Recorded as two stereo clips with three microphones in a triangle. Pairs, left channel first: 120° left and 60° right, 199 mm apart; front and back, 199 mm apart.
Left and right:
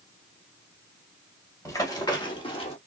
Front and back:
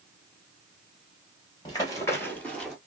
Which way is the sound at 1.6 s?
55° left.